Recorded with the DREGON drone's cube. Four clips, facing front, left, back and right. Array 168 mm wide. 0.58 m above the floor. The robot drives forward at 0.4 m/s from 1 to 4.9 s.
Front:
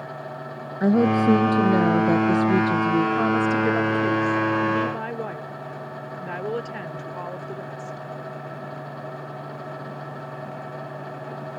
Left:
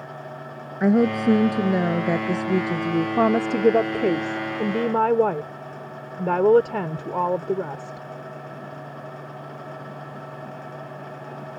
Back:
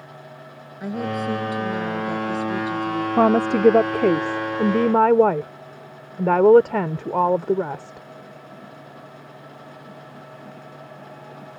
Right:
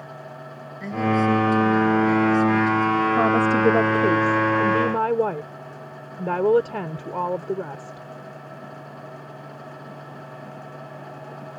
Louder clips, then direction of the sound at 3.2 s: Left 1 dB, back 4 dB; 165° left.